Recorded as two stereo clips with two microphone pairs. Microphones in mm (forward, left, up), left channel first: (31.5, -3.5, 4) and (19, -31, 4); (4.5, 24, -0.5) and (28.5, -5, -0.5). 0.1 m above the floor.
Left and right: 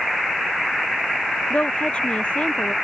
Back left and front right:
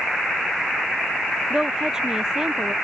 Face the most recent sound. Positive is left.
turn(degrees=20)